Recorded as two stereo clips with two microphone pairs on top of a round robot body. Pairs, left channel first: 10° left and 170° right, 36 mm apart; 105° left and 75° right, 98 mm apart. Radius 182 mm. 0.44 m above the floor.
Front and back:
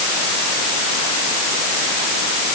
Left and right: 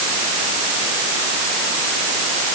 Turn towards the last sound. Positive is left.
No sound to turn to.